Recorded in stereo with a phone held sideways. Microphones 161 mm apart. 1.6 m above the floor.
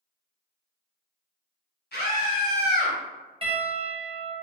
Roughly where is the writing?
I don't hear writing.